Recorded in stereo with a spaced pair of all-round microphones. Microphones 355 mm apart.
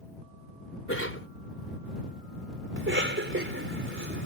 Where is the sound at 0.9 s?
35° left (ahead or behind).